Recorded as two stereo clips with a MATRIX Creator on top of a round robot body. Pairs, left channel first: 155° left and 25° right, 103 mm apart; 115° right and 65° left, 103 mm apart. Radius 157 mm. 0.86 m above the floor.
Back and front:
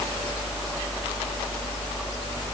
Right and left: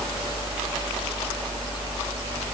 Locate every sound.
Only background noise.